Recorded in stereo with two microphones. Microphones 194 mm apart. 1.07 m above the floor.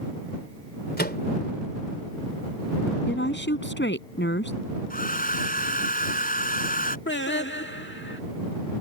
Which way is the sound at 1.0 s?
55° left (ahead or behind).